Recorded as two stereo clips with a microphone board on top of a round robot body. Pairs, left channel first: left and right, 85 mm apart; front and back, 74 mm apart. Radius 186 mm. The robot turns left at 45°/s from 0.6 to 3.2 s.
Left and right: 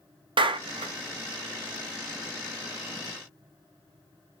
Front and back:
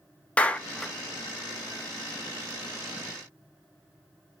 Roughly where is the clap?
Right.